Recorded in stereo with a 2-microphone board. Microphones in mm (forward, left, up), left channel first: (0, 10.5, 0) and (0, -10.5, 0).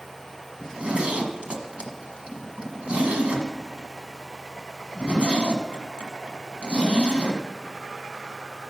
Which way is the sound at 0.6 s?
75° right (ahead or behind).